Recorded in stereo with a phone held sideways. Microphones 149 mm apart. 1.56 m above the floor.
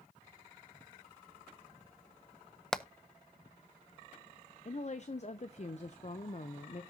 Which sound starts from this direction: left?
A woman speaking, at 4.7 s.